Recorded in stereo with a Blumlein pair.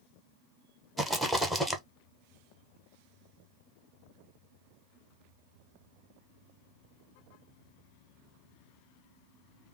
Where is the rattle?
5° right, 1.0 m.